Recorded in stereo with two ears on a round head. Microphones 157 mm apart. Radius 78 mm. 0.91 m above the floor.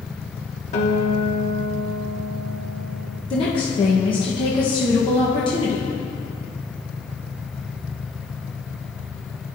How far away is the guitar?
About 1.0 m.